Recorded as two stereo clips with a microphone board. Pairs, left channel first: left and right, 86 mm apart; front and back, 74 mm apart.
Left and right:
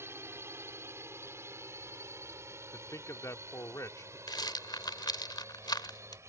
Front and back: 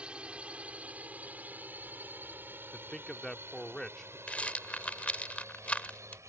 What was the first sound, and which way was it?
A drone, 115° right.